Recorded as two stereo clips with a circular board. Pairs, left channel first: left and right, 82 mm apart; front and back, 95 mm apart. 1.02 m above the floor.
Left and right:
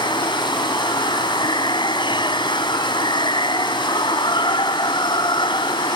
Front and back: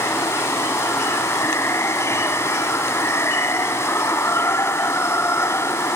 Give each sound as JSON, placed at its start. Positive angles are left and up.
{"t": 0.0, "sound": "running water", "azimuth_deg": 65}